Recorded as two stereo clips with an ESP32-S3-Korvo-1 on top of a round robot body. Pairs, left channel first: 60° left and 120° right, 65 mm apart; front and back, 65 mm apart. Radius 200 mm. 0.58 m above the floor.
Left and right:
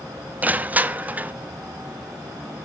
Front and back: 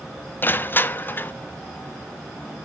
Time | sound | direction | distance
0.4 | crushing | 55° right | 0.8 m